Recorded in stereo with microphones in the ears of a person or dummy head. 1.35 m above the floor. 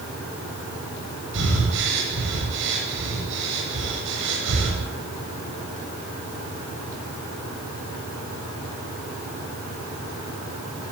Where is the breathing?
65° right (ahead or behind), 8.5 m.